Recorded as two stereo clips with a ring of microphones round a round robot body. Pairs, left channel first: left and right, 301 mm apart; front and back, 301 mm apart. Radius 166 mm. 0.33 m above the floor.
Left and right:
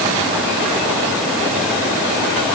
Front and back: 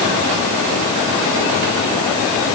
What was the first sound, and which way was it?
Only background noise.